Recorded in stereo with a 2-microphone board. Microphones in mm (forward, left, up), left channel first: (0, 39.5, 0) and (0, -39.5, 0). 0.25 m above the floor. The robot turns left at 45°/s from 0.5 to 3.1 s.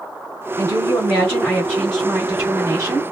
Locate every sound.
0.6 s a woman speaking: 70° left, 2 m; by 3.0 s 40° right, 2 m